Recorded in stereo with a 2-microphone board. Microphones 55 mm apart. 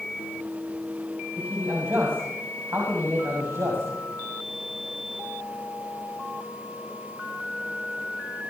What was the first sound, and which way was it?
A man speaking, 40° right (ahead or behind).